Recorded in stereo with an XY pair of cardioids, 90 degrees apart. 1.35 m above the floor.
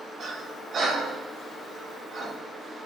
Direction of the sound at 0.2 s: 60° right.